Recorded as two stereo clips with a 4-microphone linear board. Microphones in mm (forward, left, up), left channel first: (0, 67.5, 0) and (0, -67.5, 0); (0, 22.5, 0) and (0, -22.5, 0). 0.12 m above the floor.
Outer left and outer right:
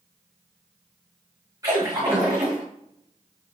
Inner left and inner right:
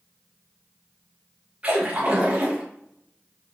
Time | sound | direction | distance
1.6 | a splash | 25° right (ahead or behind) | 4.5 m